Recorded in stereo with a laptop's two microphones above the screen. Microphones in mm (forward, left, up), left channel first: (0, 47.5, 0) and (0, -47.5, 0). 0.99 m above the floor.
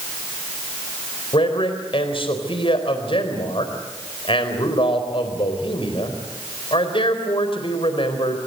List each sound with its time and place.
1.3 s a man speaking: 70° left (ahead or behind), 4 m